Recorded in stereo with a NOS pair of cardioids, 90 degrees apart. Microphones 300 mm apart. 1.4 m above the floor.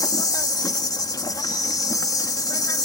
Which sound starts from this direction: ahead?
An insect, at 0.0 s.